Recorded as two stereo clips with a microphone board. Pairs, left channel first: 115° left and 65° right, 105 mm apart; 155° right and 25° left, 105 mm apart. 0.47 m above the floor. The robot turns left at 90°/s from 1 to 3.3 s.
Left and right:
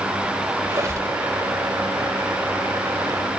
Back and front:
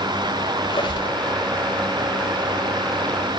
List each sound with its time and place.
0.6 s a squeak: 125° right, 1.3 m; by 1.2 s 140° right, 1.3 m